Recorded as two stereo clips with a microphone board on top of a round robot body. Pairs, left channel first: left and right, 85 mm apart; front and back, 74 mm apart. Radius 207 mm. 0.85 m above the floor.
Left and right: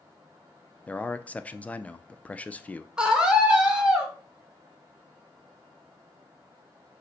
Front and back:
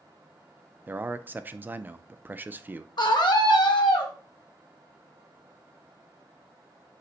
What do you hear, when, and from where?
0.9 s a man speaking: 145° left, 0.6 m
3.0 s a scream: 10° right, 1.4 m